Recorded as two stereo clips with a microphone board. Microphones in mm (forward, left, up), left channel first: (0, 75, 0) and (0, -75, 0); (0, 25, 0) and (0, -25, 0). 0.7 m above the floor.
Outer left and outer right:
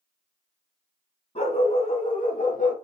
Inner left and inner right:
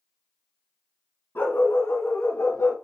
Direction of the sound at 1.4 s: 50° left (ahead or behind).